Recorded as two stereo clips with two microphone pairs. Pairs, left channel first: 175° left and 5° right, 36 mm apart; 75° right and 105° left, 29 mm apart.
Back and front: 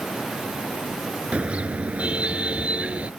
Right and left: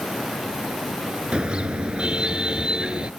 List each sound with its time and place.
1.3 s a car horn: 50° left